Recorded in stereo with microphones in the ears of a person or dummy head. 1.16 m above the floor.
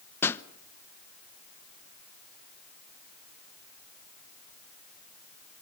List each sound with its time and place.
0.2 s a pop: 10° left (ahead or behind), 0.8 m